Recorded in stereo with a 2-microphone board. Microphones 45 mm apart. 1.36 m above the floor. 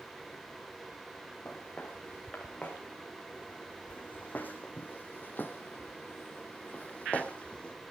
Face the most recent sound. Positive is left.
turn(degrees=25)  # may be behind; listen again after turning